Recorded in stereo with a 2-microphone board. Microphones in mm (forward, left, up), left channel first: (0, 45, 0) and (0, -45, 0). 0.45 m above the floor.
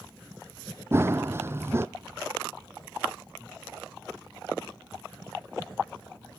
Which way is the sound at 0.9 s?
30° right (ahead or behind).